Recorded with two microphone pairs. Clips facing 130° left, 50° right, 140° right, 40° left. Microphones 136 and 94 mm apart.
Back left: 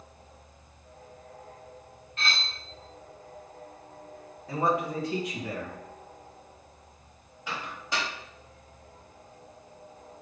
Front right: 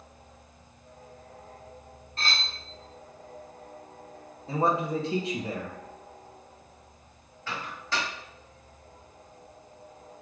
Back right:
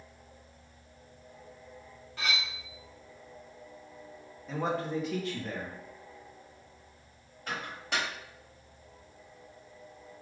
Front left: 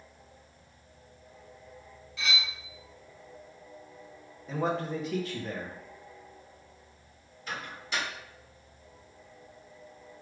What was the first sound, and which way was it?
Cutlery clinking, 100° right.